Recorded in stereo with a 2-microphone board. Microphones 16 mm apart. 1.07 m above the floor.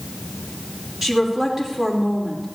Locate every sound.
1.0 s a woman speaking: 25° right (ahead or behind), 3.5 m